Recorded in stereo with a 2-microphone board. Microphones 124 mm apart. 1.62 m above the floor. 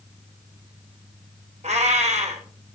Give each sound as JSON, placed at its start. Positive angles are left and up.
{"t": 1.6, "sound": "a cat meowing", "side_deg": -70, "distance_m": 3.0}